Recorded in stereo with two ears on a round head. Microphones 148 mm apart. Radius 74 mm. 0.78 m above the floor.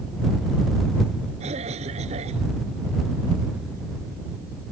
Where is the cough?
40° right (ahead or behind).